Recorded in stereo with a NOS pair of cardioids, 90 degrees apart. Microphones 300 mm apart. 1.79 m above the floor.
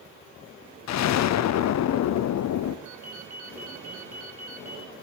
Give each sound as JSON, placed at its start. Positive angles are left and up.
{"t": 0.9, "sound": "an explosion", "azimuth_deg": 65, "distance_m": 0.8}
{"t": 2.9, "sound": "a ringtone", "azimuth_deg": -70, "distance_m": 4.0}